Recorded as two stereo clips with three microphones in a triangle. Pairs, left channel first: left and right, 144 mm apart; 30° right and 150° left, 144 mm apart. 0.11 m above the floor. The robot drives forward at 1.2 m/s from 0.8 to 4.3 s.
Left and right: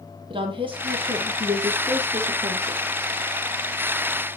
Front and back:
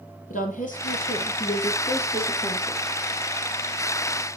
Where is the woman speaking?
40° right, 3.5 m; by 2.8 s 90° right, 2.5 m.